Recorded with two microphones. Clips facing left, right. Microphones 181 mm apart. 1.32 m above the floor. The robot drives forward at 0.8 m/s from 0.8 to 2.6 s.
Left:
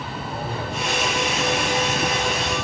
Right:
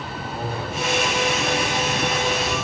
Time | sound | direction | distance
0.3 | a man speaking | 30° left (ahead or behind) | 6 m